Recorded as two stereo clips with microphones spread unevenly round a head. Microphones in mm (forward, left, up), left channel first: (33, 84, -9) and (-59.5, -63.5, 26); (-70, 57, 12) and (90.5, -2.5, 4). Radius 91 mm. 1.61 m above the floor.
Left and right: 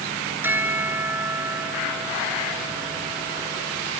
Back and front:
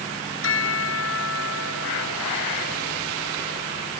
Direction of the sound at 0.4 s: 160° left.